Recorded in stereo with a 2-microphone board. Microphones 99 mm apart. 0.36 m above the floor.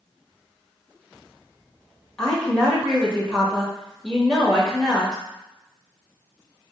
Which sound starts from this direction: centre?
A woman speaking, at 2.2 s.